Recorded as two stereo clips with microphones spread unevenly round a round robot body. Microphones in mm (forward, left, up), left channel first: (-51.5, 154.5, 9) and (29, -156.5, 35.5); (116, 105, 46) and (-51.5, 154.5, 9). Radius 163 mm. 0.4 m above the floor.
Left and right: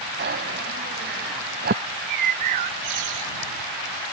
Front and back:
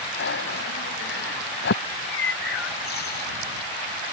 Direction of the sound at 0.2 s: 15° right.